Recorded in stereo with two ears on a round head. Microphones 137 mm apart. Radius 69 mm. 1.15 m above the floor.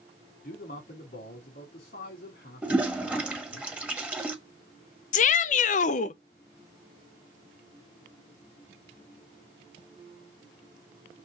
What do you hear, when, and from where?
0.4 s a man speaking: 65° left (ahead or behind), 3.5 m
2.6 s a toilet flushing: 5° right (ahead or behind), 1.2 m
5.1 s a shout: 50° left (ahead or behind), 0.6 m